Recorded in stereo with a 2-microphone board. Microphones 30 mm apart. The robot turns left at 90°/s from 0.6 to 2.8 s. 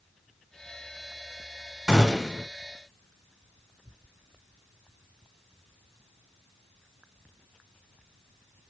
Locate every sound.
1.9 s a gunshot: 15° right (ahead or behind), 1.4 m; by 2.5 s centre (ahead or behind), 1.4 m